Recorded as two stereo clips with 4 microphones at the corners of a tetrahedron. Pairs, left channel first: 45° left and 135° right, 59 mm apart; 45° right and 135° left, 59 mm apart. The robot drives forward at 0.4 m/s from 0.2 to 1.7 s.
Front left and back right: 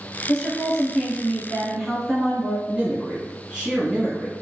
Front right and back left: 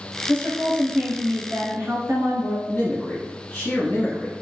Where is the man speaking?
85° right, 1.1 m.